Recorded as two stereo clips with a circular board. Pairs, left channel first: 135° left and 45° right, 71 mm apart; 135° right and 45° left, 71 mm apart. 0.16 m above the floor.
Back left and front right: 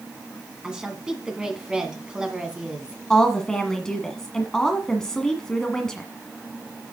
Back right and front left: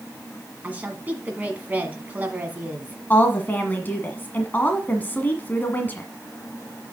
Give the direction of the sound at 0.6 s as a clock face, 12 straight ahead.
11 o'clock.